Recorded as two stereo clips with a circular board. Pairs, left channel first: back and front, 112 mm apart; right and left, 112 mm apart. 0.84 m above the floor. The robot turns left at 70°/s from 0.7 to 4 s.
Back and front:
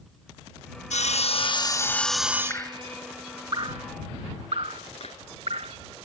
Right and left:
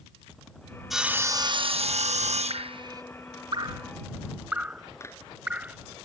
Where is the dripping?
120° left; by 5.8 s 15° left.